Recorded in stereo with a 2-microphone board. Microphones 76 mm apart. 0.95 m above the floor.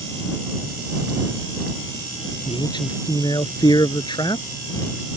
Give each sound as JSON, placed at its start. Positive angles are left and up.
{"t": 2.5, "sound": "a man speaking", "side_deg": 70}